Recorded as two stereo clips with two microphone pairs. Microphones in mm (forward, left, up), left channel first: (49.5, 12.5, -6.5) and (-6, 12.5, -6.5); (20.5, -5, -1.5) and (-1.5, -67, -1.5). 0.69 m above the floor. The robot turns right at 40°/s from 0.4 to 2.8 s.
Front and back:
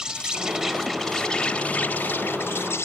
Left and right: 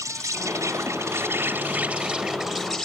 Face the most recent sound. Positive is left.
turn(degrees=-20)